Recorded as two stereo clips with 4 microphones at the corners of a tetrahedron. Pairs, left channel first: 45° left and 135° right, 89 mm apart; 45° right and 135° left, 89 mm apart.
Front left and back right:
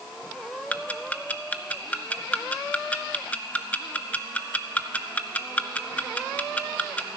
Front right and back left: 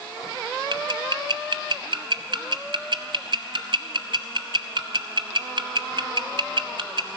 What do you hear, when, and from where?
0.7 s ticking: 120° left, 0.7 m